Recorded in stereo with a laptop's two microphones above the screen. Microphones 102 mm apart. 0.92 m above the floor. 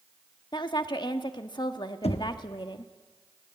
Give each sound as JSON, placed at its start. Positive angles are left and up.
{"t": 0.5, "sound": "a woman speaking", "side_deg": 45, "distance_m": 1.4}
{"t": 2.0, "sound": "knocking", "side_deg": 85, "distance_m": 0.9}